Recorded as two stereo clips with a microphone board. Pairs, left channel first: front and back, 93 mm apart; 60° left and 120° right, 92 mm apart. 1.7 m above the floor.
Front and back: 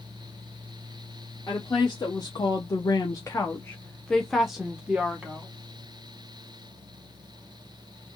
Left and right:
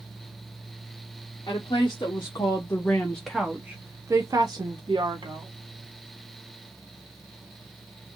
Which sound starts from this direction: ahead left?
A woman speaking, at 1.5 s.